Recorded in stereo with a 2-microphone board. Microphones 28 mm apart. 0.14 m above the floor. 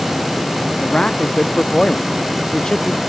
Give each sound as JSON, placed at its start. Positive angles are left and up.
{"t": 0.8, "sound": "a man speaking", "side_deg": 35}